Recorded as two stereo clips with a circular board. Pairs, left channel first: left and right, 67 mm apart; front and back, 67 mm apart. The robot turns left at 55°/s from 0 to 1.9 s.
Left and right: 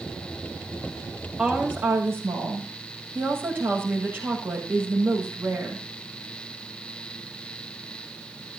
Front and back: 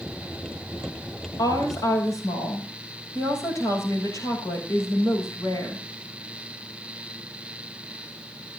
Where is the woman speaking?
5° right, 7.5 m; by 5.8 s 35° right, 7.5 m.